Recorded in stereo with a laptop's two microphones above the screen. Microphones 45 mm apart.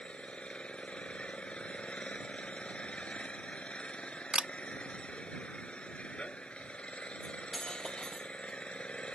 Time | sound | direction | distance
0.0 | an engine running | 25° left (ahead or behind) | ?
4.3 | a camera shutter | 25° right (ahead or behind) | ?
7.2 | cutlery clinking | 15° left (ahead or behind) | ?